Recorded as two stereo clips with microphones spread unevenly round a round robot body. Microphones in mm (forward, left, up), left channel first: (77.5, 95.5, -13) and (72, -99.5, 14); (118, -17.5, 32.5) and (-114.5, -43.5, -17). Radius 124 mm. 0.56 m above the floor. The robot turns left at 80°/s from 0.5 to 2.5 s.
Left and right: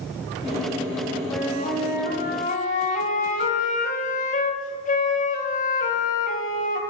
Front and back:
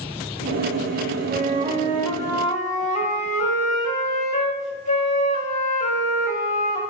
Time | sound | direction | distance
1.3 | a flute | 170° left | 1.2 m